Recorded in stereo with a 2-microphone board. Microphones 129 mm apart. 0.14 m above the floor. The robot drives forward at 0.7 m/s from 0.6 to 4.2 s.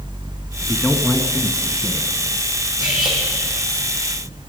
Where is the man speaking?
10° left (ahead or behind), 1.1 m; by 2.1 s 5° left (ahead or behind), 1.2 m.